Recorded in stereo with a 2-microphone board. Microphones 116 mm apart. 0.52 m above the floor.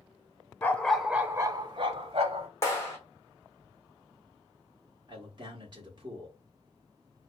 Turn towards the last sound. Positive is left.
turn(degrees=-40)  # may be behind; listen again after turning